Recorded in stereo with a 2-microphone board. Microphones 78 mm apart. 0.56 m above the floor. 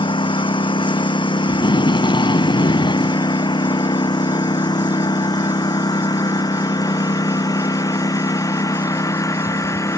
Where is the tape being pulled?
80° left.